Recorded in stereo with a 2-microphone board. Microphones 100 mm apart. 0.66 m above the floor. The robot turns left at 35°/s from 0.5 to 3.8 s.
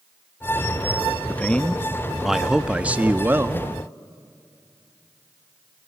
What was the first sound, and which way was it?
A man speaking, 30° left.